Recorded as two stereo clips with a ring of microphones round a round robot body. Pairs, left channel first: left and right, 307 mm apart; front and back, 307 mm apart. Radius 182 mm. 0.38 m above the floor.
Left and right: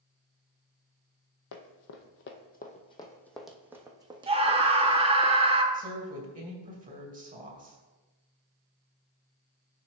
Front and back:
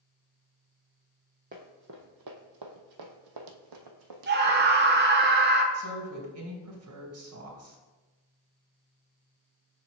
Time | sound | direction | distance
1.5 | running footsteps | 115° left | 0.9 m
4.3 | a scream | 150° right | 1.0 m
5.7 | a woman speaking | 150° right | 2.5 m